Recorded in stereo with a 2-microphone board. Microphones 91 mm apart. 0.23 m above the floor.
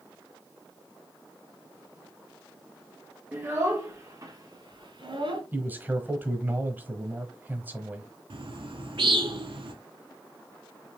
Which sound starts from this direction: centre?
A man speaking, at 5.5 s.